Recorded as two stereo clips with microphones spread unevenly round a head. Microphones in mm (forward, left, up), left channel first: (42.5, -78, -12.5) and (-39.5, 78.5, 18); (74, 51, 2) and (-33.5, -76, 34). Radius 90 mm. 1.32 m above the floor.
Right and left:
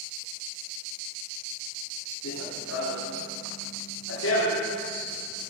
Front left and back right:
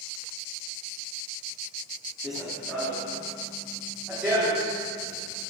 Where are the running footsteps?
45° right, 3 m; by 5.4 s 55° right, 5.5 m.